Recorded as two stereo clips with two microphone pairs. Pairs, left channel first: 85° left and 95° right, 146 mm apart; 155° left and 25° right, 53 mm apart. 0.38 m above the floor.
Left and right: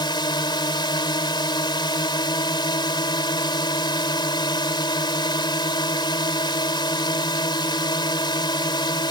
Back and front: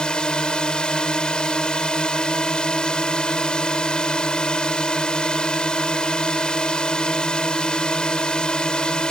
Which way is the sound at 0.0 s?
95° left.